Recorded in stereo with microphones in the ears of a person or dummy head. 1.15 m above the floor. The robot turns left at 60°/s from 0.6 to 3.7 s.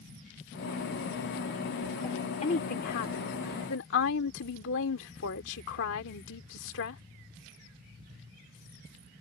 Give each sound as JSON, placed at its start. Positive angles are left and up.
{"t": 2.0, "sound": "a woman speaking", "azimuth_deg": 165}